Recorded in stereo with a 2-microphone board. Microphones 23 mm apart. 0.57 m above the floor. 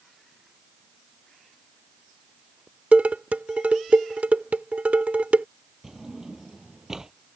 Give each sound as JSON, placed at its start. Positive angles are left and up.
{"t": 2.9, "sound": "dishes clattering", "side_deg": -70}
{"t": 5.8, "sound": "a drawer", "side_deg": -20}